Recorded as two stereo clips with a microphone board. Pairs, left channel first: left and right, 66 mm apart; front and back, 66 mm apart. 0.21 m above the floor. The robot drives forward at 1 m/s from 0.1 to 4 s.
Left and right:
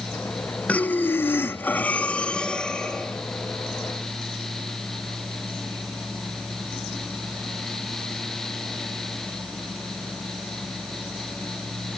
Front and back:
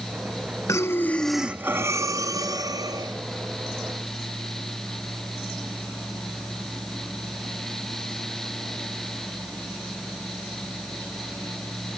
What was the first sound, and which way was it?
Breathing, 25° left.